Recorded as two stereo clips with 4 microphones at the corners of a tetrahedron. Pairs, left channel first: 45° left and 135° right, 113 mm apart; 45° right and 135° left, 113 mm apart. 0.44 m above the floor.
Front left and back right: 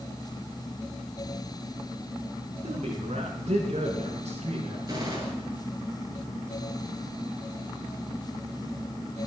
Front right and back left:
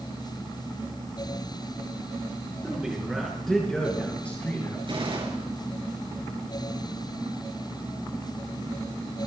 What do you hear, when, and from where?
2.6 s a man speaking: 145° right, 5 m; by 4.8 s 115° right, 5.5 m
4.9 s a gunshot: 170° left, 6.5 m